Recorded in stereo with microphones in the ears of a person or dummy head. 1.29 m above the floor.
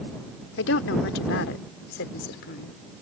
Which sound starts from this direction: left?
A woman speaking, at 0.6 s.